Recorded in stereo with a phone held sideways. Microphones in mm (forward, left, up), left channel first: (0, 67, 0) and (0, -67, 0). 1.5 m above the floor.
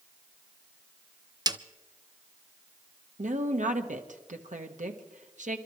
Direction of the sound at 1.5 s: 30° right (ahead or behind).